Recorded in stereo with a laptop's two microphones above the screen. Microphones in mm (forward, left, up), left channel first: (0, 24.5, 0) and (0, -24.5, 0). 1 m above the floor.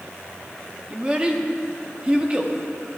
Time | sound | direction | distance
0.9 | a child speaking | 25° right (ahead or behind) | 1.0 m